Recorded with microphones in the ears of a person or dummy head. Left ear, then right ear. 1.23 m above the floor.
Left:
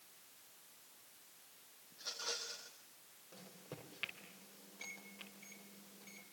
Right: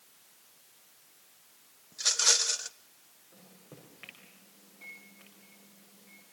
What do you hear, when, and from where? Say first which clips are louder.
1.9 s a rattle: right 17 dB; 70° right (ahead or behind), 0.9 m
3.3 s a microwave: left 1 dB; 80° left, 5.5 m